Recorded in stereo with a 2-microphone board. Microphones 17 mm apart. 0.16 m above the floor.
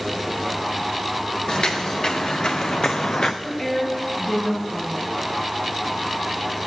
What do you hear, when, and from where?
1.5 s footsteps: 65° left (ahead or behind), 1.8 m
3.4 s a woman speaking: 35° left (ahead or behind), 2.5 m